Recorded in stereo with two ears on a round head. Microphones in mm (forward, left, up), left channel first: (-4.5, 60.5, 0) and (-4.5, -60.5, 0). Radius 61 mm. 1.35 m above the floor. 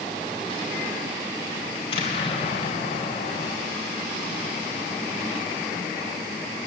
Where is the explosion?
45° left (ahead or behind), 4.5 m.